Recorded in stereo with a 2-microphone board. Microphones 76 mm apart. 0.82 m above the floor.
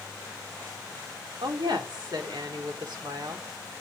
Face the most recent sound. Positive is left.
turn(degrees=-75)  # may be behind; listen again after turning